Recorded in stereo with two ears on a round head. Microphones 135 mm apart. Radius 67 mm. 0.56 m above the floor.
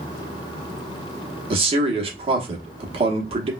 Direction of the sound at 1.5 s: 40° right (ahead or behind).